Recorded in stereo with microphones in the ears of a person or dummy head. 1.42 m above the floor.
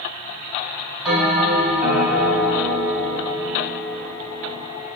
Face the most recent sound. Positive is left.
turn(degrees=-10)  # may be behind; listen again after turning